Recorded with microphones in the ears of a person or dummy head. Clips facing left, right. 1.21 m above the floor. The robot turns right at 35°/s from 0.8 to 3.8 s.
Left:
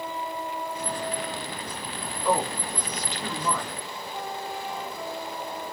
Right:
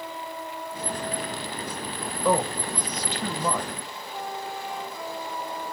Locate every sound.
2.2 s a man speaking: 80° right, 0.7 m; by 3.7 s 30° right, 0.7 m